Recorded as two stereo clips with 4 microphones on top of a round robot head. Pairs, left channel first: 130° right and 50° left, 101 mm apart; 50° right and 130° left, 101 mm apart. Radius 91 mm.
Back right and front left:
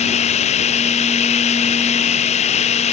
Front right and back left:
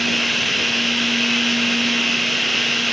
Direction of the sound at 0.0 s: 140° right.